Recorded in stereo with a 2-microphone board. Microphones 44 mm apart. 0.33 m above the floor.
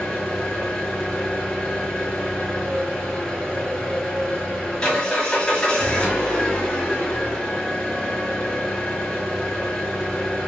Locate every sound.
0.0 s an engine running: 15° left (ahead or behind), 1.2 m